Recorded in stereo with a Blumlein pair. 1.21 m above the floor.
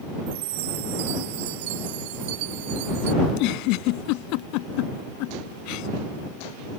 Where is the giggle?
45° left.